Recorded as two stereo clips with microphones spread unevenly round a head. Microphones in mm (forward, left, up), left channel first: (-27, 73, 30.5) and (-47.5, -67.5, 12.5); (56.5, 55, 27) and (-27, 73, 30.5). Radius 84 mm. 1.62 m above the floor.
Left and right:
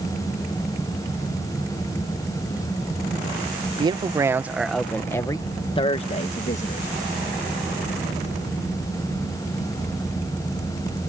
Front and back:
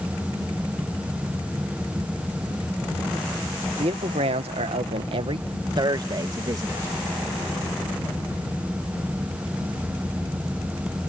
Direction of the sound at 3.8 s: 155° right.